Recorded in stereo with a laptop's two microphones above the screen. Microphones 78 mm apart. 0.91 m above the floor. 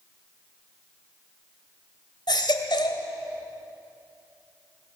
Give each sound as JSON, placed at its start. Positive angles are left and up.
{"t": 2.3, "sound": "a baby crying", "side_deg": 75, "distance_m": 2.0}